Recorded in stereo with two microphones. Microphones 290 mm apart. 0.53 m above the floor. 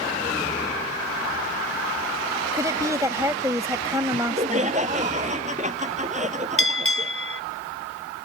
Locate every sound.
2.5 s a woman speaking: 10° right (ahead or behind)
4.1 s laughter: 25° right (ahead or behind)
6.6 s a bell: 50° left (ahead or behind)